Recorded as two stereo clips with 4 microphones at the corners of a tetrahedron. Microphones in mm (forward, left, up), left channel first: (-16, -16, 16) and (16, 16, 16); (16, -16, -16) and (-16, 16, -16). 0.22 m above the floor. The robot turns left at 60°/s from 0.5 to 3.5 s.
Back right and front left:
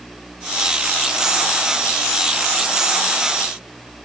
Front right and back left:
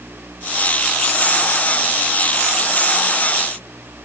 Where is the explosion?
I don't hear an explosion.